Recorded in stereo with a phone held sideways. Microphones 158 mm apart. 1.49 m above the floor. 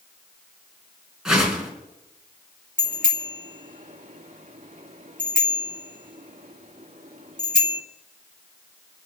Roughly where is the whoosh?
Centre.